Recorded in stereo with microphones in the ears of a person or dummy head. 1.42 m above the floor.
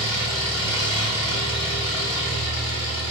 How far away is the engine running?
About 1.8 m.